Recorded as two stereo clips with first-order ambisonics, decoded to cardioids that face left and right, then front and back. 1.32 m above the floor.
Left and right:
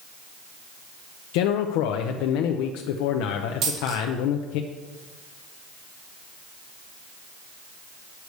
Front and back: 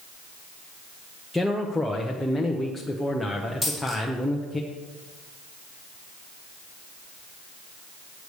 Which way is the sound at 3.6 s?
95° right.